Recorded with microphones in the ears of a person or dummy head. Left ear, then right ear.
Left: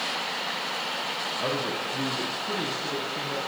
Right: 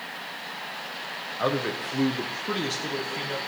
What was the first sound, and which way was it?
A man speaking, 80° right.